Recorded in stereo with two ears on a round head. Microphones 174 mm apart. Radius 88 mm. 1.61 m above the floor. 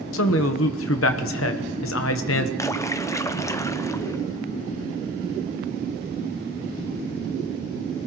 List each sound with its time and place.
0.1 s a man speaking: 70° left (ahead or behind), 1.0 m
2.6 s a splash: 15° left (ahead or behind), 0.6 m